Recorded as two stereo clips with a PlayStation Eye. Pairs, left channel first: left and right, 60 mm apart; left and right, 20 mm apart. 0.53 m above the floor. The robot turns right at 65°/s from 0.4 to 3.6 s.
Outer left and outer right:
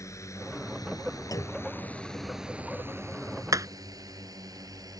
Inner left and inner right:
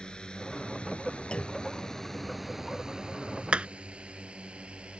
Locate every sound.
0.0 s a drone: 55° left (ahead or behind); by 5.0 s 85° right
1.3 s a clunk: 70° left (ahead or behind); by 1.7 s 80° left
3.5 s hammering: 70° right (ahead or behind); by 3.7 s 65° right (ahead or behind)